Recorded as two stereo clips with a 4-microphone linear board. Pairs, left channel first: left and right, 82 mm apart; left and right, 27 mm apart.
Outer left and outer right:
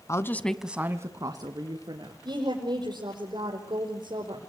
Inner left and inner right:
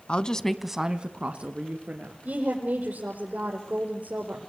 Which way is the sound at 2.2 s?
70° right (ahead or behind).